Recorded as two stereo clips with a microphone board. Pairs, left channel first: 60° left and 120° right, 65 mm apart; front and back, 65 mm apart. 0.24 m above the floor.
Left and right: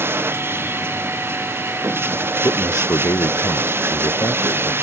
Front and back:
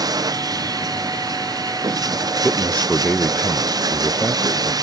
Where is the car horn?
No car horn in this recording.